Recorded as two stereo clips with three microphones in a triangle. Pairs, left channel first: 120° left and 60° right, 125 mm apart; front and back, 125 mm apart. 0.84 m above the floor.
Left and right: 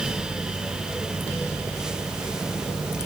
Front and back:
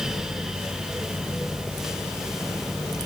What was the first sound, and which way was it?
Only background noise.